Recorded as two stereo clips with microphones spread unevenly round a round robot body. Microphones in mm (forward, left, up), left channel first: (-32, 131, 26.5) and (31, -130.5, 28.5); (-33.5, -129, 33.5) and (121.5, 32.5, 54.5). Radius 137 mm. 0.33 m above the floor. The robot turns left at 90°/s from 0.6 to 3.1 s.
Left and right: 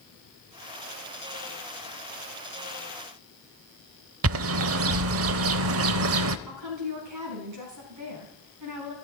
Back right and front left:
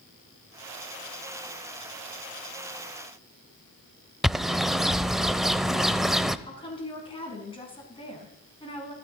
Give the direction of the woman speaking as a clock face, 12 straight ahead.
2 o'clock.